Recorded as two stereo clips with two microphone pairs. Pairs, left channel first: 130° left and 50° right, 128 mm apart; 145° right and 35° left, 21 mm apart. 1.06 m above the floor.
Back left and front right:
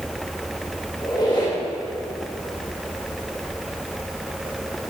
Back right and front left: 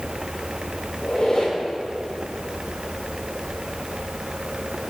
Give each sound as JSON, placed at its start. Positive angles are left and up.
{"t": 1.0, "sound": "a squeak", "azimuth_deg": 180, "distance_m": 2.0}